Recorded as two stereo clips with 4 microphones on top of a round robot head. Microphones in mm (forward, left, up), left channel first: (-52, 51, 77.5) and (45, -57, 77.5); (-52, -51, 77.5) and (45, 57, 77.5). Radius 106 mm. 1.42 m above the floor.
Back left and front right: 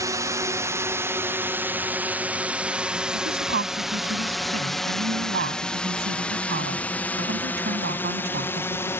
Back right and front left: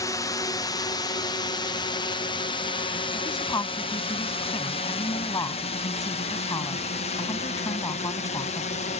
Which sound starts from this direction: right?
A drone, at 0.0 s.